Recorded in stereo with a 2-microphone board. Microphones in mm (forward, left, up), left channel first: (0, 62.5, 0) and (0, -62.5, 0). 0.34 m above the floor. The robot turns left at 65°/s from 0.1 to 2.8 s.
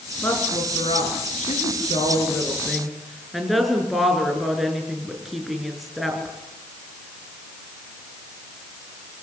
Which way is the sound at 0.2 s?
15° left (ahead or behind).